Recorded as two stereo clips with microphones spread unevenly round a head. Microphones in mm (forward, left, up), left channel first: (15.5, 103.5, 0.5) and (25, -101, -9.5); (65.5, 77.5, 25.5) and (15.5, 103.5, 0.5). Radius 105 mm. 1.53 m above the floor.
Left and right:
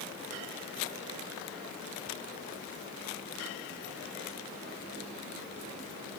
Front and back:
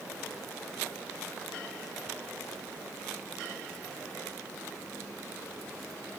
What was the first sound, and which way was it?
Only background noise.